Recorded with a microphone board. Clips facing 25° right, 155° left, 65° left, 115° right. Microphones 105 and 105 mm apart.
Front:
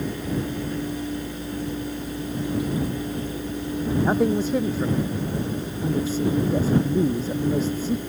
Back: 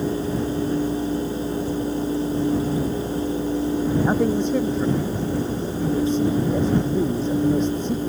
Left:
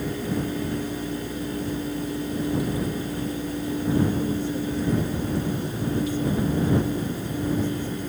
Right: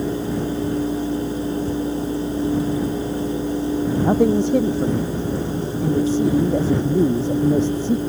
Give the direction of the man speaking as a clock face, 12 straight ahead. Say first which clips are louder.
Back 1 dB, right 8 dB; 4 o'clock.